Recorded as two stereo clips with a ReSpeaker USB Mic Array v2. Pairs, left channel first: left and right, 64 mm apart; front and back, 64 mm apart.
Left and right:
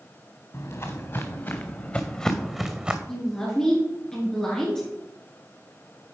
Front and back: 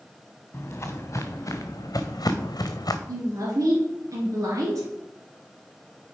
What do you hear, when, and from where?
0.5 s footsteps: 50° left, 1.6 m; by 3.0 s 15° right, 0.9 m
3.1 s a woman speaking: 170° left, 2 m